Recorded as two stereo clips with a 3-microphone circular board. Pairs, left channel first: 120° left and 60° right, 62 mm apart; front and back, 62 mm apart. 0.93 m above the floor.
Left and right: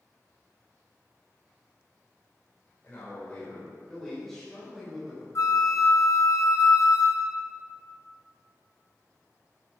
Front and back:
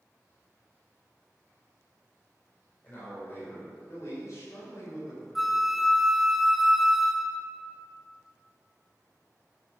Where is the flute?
90° left, 1.0 m.